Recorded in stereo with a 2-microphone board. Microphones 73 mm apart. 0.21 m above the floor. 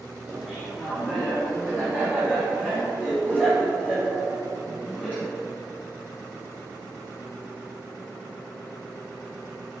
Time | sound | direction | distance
0.3 | laughter | centre (ahead or behind) | 3.5 m